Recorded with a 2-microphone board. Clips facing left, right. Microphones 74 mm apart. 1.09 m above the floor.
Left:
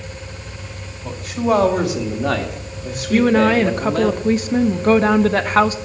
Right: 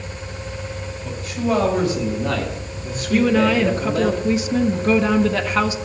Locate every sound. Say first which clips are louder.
1.0 s a man speaking: left 4 dB; 65° left (ahead or behind), 2.5 m; by 4.1 s 50° left (ahead or behind), 2.5 m
3.1 s a woman speaking: left 2 dB; 45° left (ahead or behind), 0.8 m